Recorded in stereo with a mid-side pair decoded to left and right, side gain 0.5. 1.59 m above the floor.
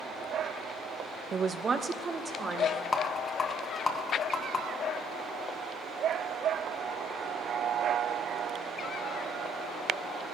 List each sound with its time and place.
1.3 s a man speaking: 40° right, 0.5 m; by 2.8 s 30° right, 1.9 m
2.9 s a rattle: 40° left, 1.2 m